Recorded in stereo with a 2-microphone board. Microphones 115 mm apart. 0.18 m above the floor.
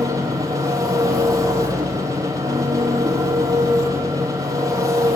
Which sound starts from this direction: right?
An engine running, at 0.0 s.